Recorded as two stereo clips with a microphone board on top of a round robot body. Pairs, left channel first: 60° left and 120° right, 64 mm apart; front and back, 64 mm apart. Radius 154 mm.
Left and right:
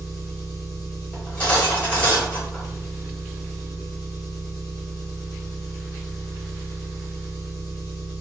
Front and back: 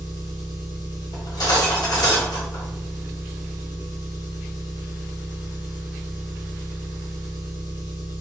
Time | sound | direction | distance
0.0 | an engine running | 25° left | 0.9 m
1.1 | cutlery clinking | 10° right | 1.7 m